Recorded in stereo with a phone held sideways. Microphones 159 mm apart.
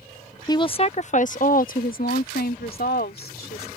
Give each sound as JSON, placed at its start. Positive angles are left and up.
{"t": 0.5, "sound": "a woman speaking", "side_deg": 25}